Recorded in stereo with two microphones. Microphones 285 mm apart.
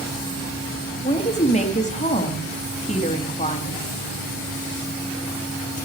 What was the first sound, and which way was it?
A woman speaking, 25° left (ahead or behind).